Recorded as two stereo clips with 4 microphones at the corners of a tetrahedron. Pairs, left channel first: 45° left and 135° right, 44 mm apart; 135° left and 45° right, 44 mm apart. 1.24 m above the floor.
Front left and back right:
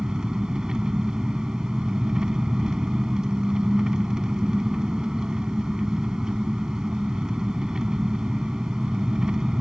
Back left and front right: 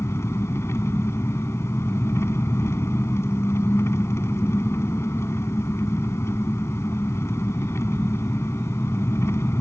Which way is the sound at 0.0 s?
150° left.